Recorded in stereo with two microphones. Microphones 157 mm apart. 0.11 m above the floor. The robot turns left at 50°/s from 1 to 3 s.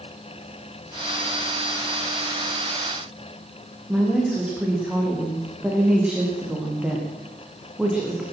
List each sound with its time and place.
3.9 s a woman speaking: 5° right (ahead or behind), 6.5 m